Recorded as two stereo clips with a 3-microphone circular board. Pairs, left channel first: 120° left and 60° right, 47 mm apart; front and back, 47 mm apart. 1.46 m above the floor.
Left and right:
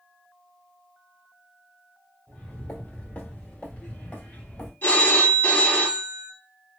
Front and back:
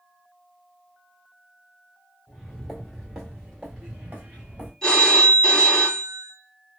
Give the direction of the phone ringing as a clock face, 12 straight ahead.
10 o'clock.